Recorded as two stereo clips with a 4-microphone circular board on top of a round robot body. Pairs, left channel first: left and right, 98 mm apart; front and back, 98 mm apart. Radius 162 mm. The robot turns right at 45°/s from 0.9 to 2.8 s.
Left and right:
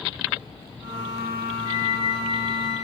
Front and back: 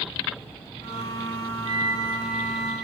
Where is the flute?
135° right, 8.5 m; by 2.9 s 80° right, 8.5 m.